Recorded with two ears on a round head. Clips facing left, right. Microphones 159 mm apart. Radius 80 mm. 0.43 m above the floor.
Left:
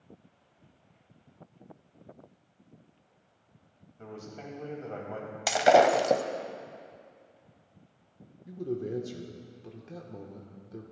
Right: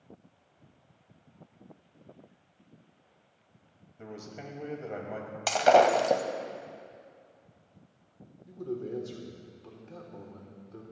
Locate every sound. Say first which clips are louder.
4.0 s a man speaking: even; 20° right (ahead or behind), 2 m
5.5 s breaking glass: even; 10° left (ahead or behind), 0.5 m
8.5 s a man speaking: left 2 dB; 15° left (ahead or behind), 1.0 m